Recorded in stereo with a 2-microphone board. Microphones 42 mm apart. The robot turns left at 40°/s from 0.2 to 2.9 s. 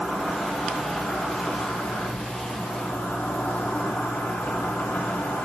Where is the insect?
175° right, 3 m; by 5.5 s 75° left, 3 m.